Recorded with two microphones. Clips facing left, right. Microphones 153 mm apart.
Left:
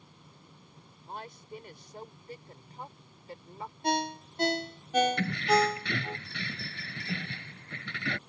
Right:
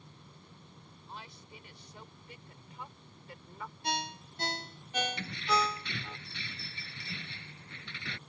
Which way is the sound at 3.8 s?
50° left (ahead or behind).